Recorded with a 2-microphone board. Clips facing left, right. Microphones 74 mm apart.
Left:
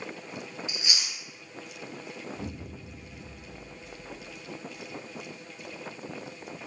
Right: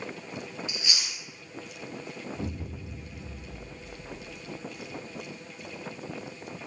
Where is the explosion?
20° right (ahead or behind), 0.9 m.